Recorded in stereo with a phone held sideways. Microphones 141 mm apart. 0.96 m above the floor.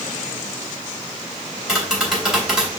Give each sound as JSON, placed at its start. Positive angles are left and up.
{"t": 1.7, "sound": "tapping", "side_deg": -5, "distance_m": 3.0}